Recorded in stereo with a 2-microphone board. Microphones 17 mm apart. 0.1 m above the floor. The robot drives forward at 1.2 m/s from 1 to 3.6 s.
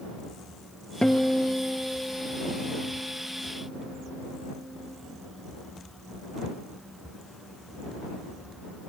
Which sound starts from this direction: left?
A guitar, at 1.0 s.